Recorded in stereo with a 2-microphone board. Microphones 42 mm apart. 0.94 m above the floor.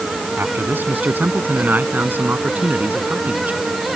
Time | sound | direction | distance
0.4 | a man speaking | 55° right (ahead or behind) | ?